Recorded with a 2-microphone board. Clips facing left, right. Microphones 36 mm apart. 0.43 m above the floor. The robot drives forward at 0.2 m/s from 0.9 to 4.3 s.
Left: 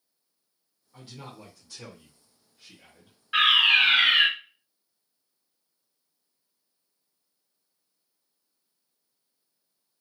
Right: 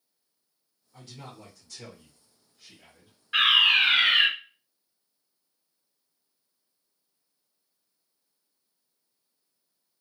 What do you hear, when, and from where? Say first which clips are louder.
0.9 s a man speaking: left 1 dB; 15° left (ahead or behind), 0.9 m
3.3 s a fire alarm: left 1 dB; 10° left (ahead or behind), 1.8 m